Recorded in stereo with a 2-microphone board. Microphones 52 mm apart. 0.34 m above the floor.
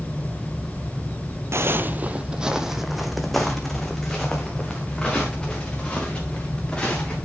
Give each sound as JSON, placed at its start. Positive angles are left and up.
{"t": 1.5, "sound": "footsteps", "side_deg": -55, "distance_m": 0.6}